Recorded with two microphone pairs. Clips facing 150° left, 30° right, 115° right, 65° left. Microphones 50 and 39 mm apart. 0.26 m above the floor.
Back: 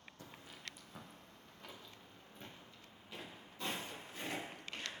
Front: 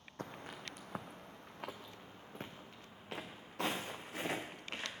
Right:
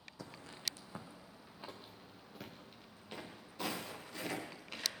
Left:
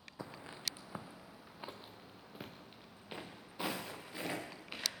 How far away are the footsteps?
About 0.9 m.